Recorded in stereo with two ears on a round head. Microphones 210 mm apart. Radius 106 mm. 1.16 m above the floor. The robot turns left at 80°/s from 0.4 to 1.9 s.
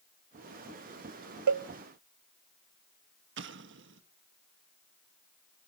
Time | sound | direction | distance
1.5 | a cowbell | 85° right | 0.6 m
3.4 | an explosion | 55° right (ahead or behind) | 1.2 m